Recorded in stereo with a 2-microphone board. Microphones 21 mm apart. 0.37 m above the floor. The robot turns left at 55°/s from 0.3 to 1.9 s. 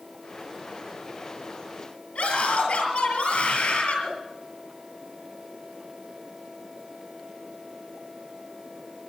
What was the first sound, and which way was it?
A scream, 75° left (ahead or behind).